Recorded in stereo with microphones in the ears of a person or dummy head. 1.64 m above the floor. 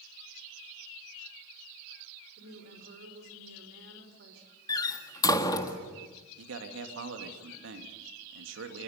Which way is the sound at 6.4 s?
90° right.